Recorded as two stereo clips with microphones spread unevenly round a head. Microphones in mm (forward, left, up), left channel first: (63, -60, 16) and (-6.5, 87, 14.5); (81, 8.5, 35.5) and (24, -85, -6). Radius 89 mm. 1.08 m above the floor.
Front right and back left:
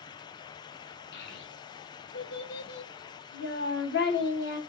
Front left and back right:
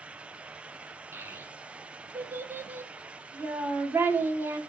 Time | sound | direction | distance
1.1 | a child speaking | 45° right | 0.9 m